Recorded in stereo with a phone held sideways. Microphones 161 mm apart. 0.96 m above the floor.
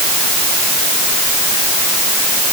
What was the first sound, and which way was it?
Only background noise.